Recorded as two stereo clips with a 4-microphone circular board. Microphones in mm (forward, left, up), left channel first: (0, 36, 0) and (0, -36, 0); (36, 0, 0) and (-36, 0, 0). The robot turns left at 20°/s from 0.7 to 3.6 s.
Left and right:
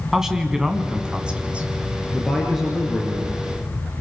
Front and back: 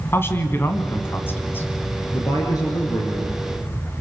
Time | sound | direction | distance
0.1 | a man speaking | 15° right | 2.0 m
2.1 | a man speaking | 5° left | 3.5 m